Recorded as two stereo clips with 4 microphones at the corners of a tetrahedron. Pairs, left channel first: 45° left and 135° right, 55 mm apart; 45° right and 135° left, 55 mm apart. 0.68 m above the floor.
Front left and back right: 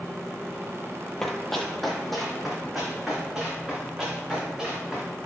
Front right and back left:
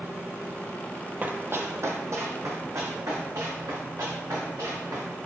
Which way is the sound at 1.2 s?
120° left.